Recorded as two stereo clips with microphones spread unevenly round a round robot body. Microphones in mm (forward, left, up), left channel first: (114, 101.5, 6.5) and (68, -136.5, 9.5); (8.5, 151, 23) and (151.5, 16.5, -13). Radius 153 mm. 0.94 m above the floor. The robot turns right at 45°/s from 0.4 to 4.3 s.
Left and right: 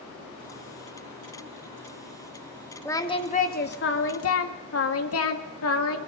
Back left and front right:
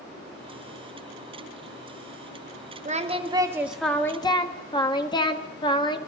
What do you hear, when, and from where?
2.9 s singing: straight ahead, 2 m; by 6.0 s 65° left, 2 m